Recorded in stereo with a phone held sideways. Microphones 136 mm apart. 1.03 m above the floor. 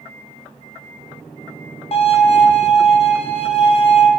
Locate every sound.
1.9 s a violin: 50° left (ahead or behind), 0.6 m